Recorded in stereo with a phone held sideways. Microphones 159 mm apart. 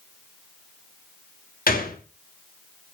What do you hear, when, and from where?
1.7 s a gunshot: 70° left (ahead or behind), 2.5 m